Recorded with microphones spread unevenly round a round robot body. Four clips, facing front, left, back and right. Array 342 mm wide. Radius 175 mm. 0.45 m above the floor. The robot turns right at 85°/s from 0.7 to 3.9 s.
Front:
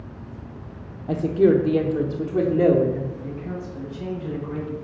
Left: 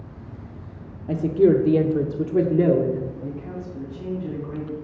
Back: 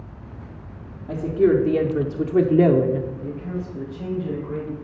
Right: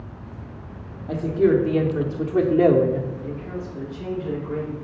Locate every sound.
1.1 s a woman speaking: 40° left, 0.7 m; by 3.1 s 150° right, 0.7 m
3.2 s a man speaking: 105° left, 3 m; by 4.7 s 165° left, 3 m